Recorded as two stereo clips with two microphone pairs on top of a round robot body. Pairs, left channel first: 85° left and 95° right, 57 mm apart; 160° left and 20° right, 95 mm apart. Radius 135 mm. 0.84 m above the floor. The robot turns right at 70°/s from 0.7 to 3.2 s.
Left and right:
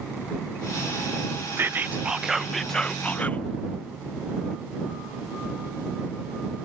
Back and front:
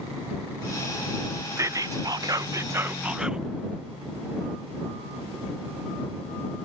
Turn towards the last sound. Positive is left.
turn(degrees=60)